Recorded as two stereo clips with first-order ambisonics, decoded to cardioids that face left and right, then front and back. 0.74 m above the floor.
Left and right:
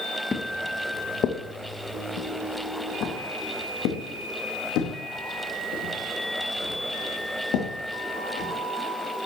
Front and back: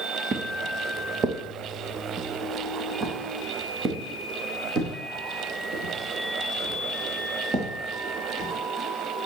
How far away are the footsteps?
About 0.8 m.